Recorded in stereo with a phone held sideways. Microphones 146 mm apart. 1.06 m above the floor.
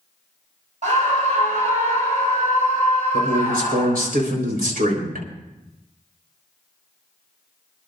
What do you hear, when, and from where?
0.8 s a scream: 55° right (ahead or behind), 4.5 m
3.1 s a man speaking: 75° right (ahead or behind), 4 m